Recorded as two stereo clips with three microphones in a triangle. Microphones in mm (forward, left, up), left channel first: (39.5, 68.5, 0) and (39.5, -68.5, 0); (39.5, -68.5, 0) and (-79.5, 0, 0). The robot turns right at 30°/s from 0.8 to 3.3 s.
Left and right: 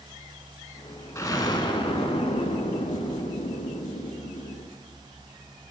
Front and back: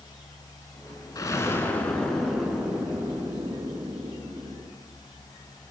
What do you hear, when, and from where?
1.1 s an explosion: 25° left, 0.6 m; by 4.7 s 90° left, 0.6 m